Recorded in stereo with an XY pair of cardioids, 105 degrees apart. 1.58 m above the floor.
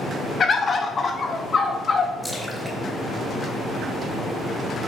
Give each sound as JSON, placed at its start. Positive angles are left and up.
{"t": 0.4, "sound": "a bird", "azimuth_deg": 40, "distance_m": 1.0}
{"t": 2.2, "sound": "a splash", "azimuth_deg": -5, "distance_m": 3.5}